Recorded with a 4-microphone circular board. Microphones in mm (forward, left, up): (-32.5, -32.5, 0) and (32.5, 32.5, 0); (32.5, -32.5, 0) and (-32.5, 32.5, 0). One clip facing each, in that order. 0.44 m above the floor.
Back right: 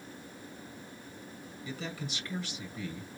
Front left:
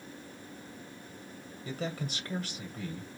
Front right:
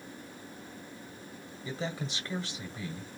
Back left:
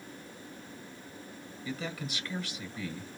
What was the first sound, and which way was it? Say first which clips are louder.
A man speaking: front left 4 dB, front right 1 dB; 10° left.